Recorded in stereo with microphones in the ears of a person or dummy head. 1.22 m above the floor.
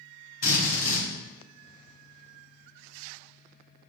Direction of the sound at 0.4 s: 60° left (ahead or behind).